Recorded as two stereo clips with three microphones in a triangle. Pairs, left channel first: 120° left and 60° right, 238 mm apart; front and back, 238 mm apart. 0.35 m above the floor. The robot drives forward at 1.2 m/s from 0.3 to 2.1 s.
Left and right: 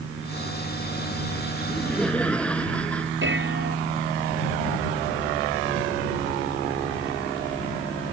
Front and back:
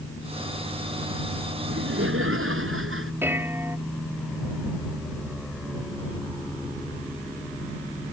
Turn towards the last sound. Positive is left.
turn(degrees=-100)